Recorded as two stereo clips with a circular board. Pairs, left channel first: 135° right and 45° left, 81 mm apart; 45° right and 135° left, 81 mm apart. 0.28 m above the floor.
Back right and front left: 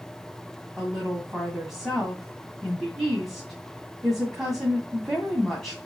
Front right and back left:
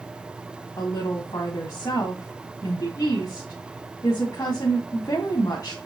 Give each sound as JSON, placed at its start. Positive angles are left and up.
{"t": 0.8, "sound": "a woman speaking", "azimuth_deg": -45, "distance_m": 2.5}